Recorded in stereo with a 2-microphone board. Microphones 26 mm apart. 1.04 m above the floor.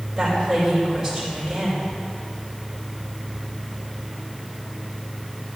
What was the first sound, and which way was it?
A woman speaking, 20° right (ahead or behind).